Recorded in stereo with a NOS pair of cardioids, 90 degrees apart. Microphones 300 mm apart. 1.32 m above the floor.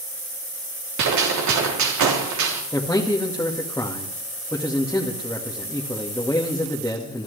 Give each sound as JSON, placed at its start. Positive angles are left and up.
{"t": 1.0, "sound": "a gunshot", "azimuth_deg": -65, "distance_m": 3.5}
{"t": 2.7, "sound": "a man speaking", "azimuth_deg": 10, "distance_m": 2.0}